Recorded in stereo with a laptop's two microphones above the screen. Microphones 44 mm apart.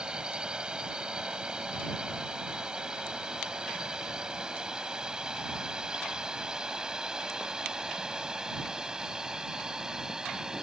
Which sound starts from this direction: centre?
A drone, at 0.0 s.